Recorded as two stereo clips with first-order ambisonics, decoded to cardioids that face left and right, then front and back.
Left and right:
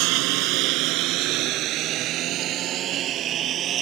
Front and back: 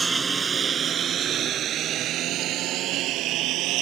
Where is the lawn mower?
105° right; by 3.8 s 145° right.